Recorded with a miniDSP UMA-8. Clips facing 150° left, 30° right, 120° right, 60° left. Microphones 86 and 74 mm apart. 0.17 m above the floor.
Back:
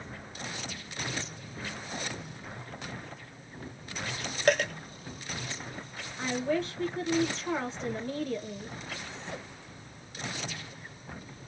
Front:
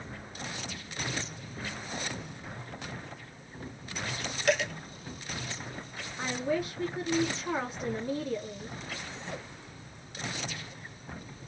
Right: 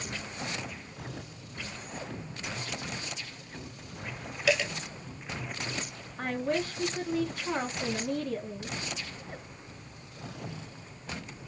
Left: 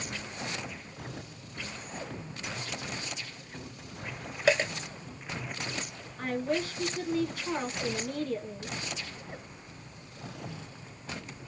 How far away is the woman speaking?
About 1.1 m.